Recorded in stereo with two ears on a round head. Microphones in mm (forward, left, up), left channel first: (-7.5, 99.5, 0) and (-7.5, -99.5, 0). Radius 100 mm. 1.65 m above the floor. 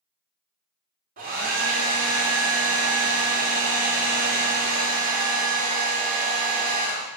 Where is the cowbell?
I don't hear a cowbell.